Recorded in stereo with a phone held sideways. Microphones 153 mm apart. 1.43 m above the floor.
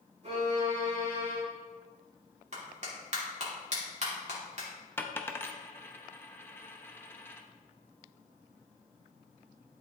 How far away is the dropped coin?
About 0.7 m.